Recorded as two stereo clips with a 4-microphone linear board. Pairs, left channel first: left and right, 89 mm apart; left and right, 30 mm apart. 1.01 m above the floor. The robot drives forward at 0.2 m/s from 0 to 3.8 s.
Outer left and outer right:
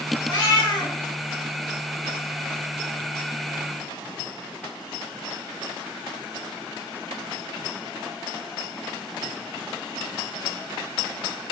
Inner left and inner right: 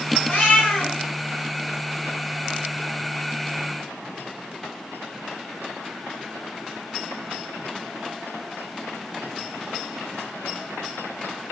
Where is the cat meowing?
50° left (ahead or behind), 1.5 m.